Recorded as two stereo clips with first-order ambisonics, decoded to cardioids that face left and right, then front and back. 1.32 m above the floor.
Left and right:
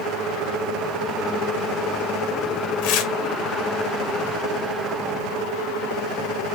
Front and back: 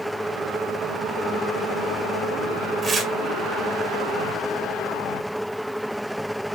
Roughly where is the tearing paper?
Left.